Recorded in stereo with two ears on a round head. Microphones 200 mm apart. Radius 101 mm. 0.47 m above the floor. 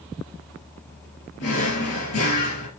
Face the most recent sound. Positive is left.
turn(degrees=55)  # may be behind; listen again after turning